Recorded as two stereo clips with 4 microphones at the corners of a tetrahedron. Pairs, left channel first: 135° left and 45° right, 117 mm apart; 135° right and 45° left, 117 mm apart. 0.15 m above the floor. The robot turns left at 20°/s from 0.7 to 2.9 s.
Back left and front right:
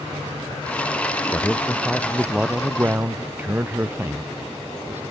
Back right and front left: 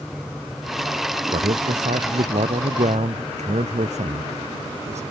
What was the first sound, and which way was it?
A man speaking, 60° left.